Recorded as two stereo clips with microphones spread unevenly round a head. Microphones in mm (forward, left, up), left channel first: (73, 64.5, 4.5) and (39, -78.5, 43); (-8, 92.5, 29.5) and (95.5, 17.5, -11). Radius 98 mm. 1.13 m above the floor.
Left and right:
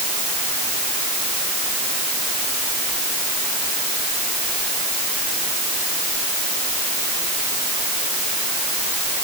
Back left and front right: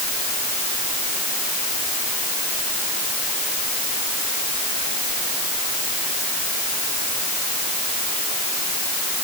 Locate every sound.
Only background noise.